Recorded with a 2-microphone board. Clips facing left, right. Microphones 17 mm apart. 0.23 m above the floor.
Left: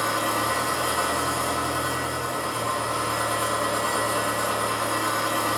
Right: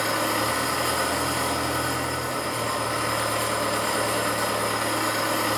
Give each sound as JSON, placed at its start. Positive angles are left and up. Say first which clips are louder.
{"t": 0.0, "sound": "an engine running", "louder": "even", "side_deg": -80, "distance_m": 1.2}